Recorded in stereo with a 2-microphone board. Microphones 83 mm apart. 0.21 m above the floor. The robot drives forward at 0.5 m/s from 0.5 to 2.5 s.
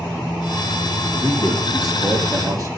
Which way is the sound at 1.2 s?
60° right (ahead or behind).